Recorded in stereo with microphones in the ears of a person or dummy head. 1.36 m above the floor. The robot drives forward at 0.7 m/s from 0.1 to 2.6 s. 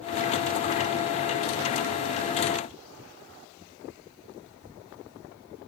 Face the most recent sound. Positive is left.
No sound to turn to.